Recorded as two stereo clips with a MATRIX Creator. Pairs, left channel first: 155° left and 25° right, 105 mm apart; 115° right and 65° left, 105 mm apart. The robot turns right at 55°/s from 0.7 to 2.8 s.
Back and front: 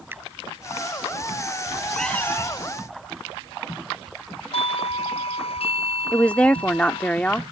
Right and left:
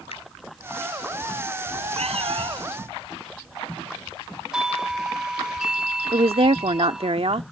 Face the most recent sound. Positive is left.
turn(degrees=80)